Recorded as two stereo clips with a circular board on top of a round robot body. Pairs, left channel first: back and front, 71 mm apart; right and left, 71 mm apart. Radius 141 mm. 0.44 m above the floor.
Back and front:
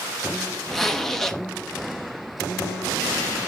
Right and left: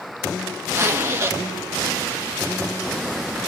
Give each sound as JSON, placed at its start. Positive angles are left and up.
{"t": 0.7, "sound": "a zipper", "azimuth_deg": 100, "distance_m": 1.5}